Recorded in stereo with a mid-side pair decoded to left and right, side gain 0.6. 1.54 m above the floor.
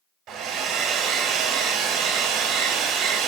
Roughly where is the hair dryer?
Right.